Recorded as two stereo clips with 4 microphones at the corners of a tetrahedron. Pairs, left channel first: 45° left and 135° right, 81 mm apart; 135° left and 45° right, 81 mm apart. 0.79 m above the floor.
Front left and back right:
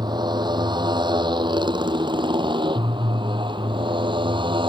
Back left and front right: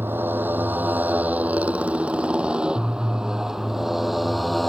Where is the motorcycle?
110° right; by 4.7 s 135° right.